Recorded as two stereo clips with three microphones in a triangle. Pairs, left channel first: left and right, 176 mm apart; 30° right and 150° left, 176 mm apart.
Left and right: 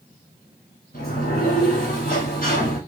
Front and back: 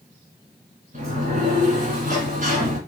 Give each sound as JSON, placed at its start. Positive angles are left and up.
{"t": 0.9, "sound": "a sliding door", "azimuth_deg": 115, "distance_m": 1.5}